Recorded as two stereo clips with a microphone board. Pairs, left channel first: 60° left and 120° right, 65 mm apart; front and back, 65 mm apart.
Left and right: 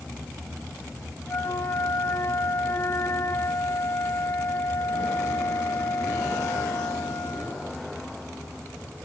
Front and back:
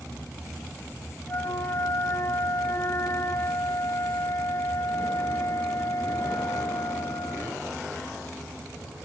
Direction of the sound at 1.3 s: 30° left.